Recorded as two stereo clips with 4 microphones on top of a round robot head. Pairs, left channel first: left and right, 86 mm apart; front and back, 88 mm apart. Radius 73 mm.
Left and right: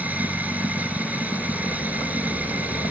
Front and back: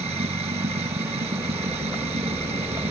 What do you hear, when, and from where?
0.0 s running water: 160° right